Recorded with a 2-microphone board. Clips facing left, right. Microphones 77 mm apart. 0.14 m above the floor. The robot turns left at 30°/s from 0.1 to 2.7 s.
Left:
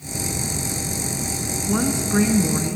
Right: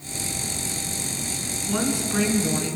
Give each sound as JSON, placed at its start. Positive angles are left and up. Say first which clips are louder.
{"t": 1.7, "sound": "a woman speaking", "louder": "left 3 dB", "azimuth_deg": 145, "distance_m": 1.4}